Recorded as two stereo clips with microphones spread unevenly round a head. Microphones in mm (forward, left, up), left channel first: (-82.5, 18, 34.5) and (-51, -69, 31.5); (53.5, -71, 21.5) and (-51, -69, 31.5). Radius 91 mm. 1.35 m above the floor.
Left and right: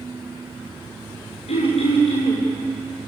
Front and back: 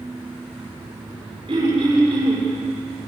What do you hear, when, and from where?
1.5 s throat clearing: 115° left, 8.5 m